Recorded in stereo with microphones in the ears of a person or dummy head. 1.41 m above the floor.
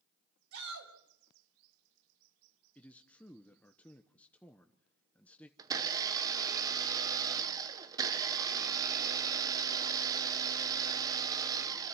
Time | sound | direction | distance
0.5 | a shout | 85° right | 6 m
2.8 | a man speaking | 5° left (ahead or behind) | 0.9 m
5.6 | a blender | 20° right (ahead or behind) | 0.9 m